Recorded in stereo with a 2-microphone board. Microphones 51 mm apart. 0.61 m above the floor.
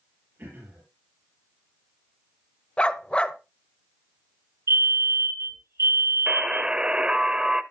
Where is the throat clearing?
45° right (ahead or behind), 7 m.